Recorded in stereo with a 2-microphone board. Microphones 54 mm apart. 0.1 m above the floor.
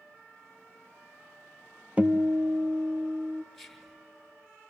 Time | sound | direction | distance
2.0 | a guitar | 25° right (ahead or behind) | 0.5 m
3.5 | whispering | 5° left (ahead or behind) | 1.2 m